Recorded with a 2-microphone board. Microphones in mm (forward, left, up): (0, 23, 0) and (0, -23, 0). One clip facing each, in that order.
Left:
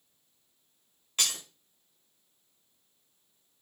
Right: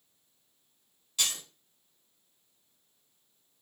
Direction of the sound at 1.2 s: 45° left (ahead or behind).